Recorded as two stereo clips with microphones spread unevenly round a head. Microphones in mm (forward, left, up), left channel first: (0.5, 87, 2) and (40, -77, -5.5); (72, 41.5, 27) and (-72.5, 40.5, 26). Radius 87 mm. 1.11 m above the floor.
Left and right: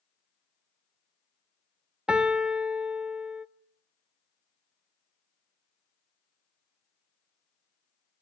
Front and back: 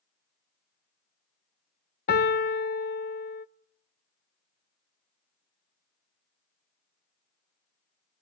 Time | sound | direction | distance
2.1 | a piano | 10° left | 1.0 m